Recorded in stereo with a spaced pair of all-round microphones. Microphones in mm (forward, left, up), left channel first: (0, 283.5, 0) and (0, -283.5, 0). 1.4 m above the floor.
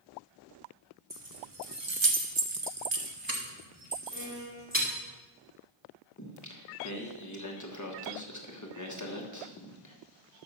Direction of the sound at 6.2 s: 30° left (ahead or behind).